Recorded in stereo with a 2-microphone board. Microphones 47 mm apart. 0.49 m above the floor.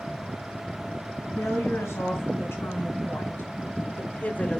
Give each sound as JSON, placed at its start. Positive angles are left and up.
{"t": 1.4, "sound": "a woman speaking", "side_deg": 75, "distance_m": 3.0}